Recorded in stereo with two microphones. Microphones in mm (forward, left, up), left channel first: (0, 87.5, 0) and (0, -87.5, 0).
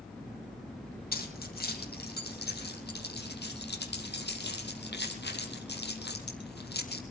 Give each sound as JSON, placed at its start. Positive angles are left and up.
{"t": 1.1, "sound": "keys jangling", "side_deg": 60, "distance_m": 6.5}